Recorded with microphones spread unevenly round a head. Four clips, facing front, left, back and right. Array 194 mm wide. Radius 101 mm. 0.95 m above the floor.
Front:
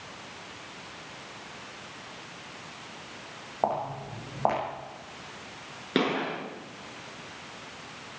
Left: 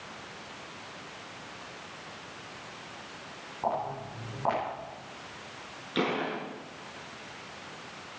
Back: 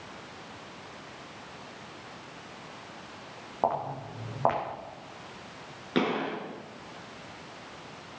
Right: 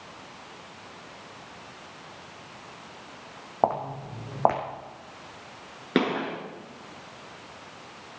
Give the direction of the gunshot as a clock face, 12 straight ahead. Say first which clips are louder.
Right 4 dB, front 1 dB; 2 o'clock.